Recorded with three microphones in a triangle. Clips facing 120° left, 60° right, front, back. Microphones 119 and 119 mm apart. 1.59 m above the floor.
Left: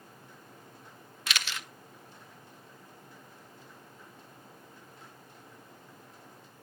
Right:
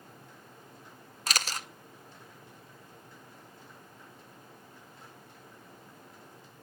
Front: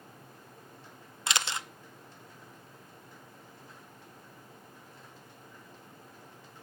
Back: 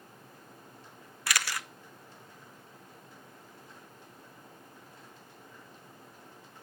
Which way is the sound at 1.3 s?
55° right.